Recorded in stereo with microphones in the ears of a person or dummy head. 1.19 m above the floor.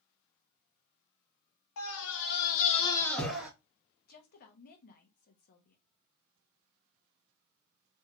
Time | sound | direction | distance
1.8 | a scream | 85° left | 1.0 m
4.1 | a woman speaking | 55° left (ahead or behind) | 0.7 m